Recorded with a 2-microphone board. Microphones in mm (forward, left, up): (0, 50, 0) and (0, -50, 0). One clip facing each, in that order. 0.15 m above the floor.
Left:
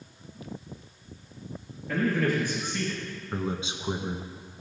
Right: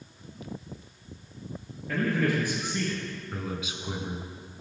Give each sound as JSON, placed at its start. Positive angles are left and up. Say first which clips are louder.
{"t": 1.9, "sound": "a man speaking", "louder": "left 1 dB", "side_deg": 0, "distance_m": 3.0}
{"t": 3.3, "sound": "a man speaking", "louder": "left 6 dB", "side_deg": 30, "distance_m": 1.4}